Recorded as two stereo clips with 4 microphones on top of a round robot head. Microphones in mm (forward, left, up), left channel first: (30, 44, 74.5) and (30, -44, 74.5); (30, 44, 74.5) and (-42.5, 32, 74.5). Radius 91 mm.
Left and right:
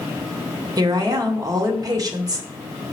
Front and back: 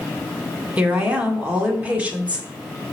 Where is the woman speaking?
105° right, 1.8 m.